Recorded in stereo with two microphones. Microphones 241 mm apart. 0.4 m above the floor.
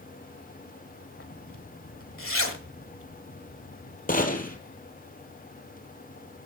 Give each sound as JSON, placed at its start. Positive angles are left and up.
{"t": 1.2, "sound": "a zipper", "side_deg": 60, "distance_m": 1.5}
{"t": 4.1, "sound": "a gunshot", "side_deg": 35, "distance_m": 1.6}